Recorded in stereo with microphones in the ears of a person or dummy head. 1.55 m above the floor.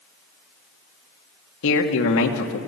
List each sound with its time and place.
1.6 s a man speaking: 75° left (ahead or behind), 2.0 m